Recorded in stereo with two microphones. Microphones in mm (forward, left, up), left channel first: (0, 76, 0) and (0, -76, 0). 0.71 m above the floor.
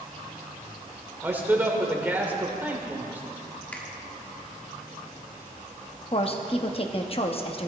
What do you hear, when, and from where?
1.2 s a man speaking: 10° right (ahead or behind), 1.9 m
3.7 s a finger snap: 10° left (ahead or behind), 1.4 m
6.1 s a woman speaking: 40° left (ahead or behind), 1.0 m